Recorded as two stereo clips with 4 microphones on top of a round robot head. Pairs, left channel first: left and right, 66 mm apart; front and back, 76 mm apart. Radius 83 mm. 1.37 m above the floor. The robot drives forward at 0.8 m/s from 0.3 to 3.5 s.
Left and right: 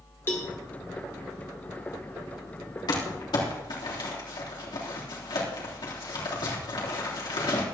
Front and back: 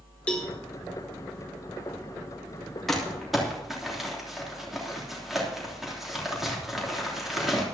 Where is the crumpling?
85° left, 3.5 m; by 7.6 s 95° left, 3.5 m.